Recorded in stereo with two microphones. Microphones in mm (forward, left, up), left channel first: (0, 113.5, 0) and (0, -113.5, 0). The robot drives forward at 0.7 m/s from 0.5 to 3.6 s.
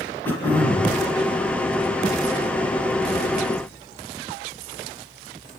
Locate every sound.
0.2 s throat clearing: 10° left (ahead or behind), 4.5 m